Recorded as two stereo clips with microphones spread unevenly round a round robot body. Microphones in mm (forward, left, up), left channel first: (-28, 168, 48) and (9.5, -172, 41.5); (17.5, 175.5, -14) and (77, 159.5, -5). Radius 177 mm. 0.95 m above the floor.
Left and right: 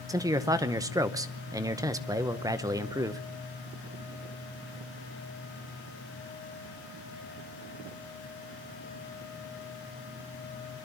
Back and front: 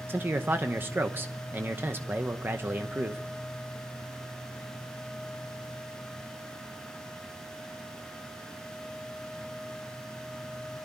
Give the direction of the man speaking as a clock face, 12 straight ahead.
1 o'clock.